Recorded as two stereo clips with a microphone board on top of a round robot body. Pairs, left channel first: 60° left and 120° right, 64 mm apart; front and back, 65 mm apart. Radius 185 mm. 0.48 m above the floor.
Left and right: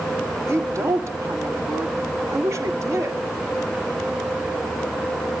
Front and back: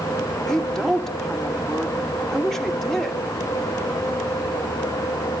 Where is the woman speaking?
85° right, 2.5 m.